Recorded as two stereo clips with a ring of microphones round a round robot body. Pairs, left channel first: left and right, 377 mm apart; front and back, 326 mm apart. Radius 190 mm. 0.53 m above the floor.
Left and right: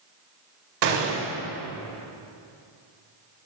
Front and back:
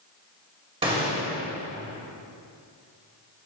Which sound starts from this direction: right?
A gunshot, at 0.8 s.